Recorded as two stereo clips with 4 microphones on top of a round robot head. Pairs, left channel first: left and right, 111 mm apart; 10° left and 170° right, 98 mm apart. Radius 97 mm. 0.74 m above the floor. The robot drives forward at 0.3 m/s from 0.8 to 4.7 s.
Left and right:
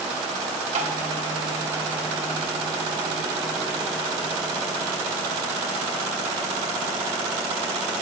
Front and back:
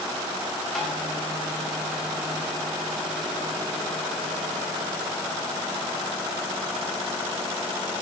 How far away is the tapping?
About 1.3 m.